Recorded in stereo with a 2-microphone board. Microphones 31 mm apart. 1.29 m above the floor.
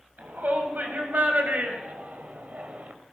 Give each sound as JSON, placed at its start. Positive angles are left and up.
{"t": 0.2, "sound": "a shout", "side_deg": -85, "distance_m": 7.0}